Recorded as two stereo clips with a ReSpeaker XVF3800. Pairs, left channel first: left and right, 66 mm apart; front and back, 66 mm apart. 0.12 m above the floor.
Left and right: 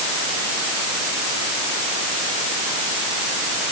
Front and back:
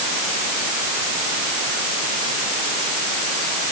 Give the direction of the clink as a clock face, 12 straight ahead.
I don't hear a clink.